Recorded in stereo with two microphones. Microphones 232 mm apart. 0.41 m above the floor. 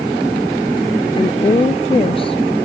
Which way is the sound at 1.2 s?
25° left (ahead or behind).